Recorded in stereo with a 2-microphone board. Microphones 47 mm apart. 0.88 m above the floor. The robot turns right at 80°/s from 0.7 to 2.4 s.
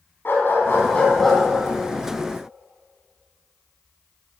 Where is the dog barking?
130° left, 3.5 m; by 1.4 s 175° right, 3.5 m.